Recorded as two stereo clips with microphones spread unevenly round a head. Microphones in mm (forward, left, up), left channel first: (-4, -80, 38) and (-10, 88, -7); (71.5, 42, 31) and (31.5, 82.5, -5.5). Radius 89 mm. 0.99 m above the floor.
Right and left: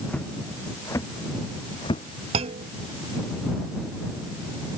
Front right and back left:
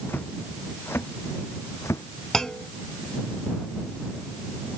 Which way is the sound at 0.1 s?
10° right.